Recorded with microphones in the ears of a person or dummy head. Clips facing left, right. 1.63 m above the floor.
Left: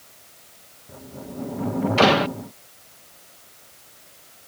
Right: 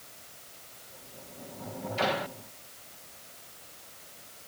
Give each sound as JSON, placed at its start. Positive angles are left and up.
{"t": 0.9, "sound": "a sliding door", "side_deg": 85}